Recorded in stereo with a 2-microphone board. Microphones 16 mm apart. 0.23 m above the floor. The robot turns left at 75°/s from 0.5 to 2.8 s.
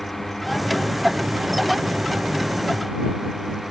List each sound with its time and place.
0.0 s a drone: 20° left (ahead or behind); by 3.7 s 20° right (ahead or behind)